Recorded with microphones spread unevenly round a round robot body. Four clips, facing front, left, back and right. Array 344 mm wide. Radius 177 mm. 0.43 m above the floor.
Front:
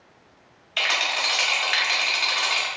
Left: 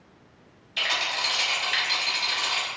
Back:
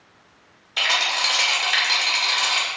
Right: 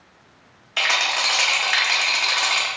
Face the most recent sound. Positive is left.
turn(degrees=-115)